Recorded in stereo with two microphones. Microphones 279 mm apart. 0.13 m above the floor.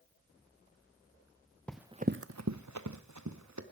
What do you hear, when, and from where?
1.7 s running footsteps: 5° left (ahead or behind), 1.0 m; by 3.6 s 75° right (ahead or behind), 2.5 m